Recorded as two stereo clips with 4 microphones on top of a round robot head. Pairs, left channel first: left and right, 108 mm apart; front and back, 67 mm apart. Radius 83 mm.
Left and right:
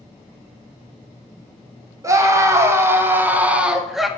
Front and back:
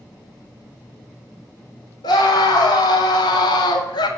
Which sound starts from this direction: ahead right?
A scream, at 2.0 s.